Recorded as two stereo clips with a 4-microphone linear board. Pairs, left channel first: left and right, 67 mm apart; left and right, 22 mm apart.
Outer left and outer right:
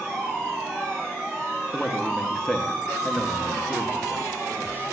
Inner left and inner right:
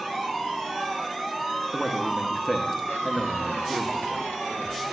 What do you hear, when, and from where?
1.7 s a man speaking: 5° left (ahead or behind), 1.0 m